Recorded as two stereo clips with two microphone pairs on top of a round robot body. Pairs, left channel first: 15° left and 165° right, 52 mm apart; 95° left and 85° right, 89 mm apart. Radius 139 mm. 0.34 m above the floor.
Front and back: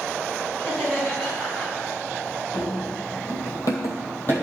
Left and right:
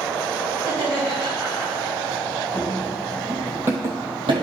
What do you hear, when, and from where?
0.6 s laughter: 50° right, 3 m
2.5 s running footsteps: 20° left, 1.2 m; by 4.4 s 50° right, 0.9 m